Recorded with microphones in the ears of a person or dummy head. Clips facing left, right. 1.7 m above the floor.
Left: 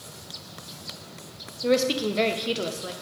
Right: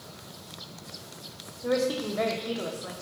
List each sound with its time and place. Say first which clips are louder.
1.6 s a woman speaking: left 4 dB; 45° left (ahead or behind), 1.2 m